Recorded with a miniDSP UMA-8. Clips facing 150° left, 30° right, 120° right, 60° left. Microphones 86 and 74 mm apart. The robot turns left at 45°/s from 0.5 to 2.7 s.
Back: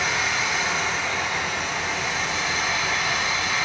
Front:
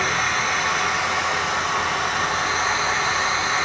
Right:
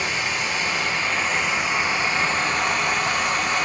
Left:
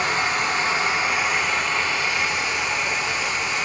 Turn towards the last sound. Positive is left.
turn(degrees=-85)